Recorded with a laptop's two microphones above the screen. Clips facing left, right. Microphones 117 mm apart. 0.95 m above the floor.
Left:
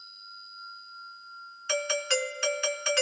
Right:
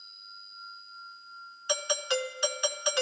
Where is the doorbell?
15° right (ahead or behind), 1.3 m.